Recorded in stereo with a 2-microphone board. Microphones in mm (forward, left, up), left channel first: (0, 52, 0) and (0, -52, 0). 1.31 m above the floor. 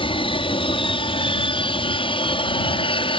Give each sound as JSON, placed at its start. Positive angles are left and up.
{"t": 0.0, "sound": "an aircraft", "side_deg": 55}